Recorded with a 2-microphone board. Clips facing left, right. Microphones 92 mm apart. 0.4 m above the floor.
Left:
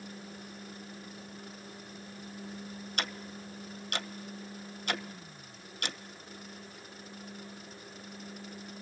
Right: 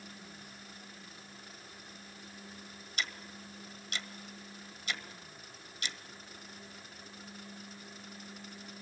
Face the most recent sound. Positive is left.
turn(degrees=60)  # may be behind; listen again after turning